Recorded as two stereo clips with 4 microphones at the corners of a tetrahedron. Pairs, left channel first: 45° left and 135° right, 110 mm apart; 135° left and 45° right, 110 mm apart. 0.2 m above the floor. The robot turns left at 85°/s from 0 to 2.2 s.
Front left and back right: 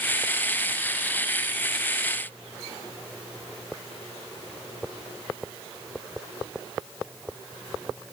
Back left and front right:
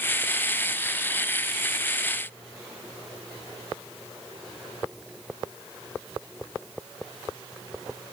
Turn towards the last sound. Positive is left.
No sound to turn to.